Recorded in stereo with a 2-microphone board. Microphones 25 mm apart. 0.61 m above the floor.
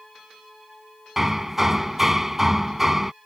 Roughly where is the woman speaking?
No woman speaking in this recording.